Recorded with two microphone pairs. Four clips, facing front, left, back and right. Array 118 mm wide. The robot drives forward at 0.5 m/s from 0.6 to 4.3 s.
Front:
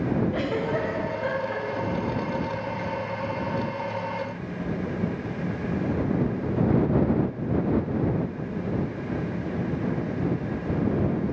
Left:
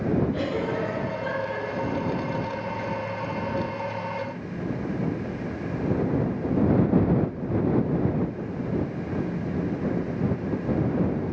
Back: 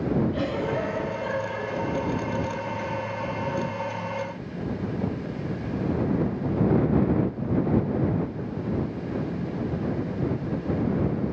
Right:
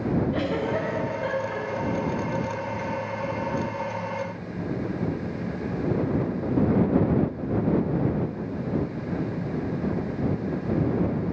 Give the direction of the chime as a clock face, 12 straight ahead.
I don't hear a chime.